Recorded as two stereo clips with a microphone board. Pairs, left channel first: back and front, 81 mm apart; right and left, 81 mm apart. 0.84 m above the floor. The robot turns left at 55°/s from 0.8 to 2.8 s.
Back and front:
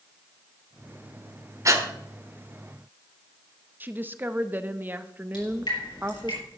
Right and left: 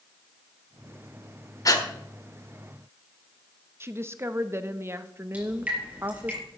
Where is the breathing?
50° right, 1.3 m; by 1.9 s 60° right, 1.3 m.